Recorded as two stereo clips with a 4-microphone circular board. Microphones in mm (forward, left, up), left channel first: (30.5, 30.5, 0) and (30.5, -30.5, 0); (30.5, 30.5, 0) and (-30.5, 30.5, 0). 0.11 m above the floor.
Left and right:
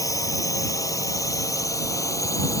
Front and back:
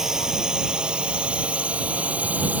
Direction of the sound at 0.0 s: 100° left.